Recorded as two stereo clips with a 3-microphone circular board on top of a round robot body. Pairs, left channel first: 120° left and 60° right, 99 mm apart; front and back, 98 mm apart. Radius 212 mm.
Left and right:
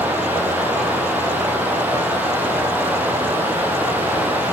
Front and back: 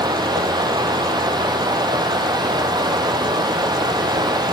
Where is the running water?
135° right, 3 m.